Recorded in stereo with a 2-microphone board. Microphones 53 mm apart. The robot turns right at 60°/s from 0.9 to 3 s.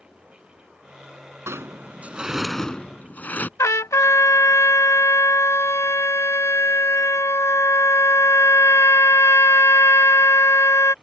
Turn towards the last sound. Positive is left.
turn(degrees=70)  # may be behind; listen again after turning